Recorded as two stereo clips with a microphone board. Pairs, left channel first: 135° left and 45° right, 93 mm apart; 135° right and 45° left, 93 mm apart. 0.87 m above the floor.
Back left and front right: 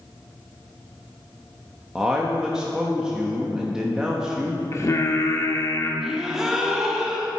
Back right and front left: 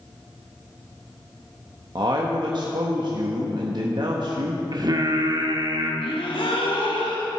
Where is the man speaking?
35° left, 1.1 m.